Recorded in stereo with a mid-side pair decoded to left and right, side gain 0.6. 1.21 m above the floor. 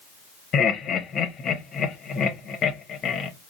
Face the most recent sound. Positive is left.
turn(degrees=45)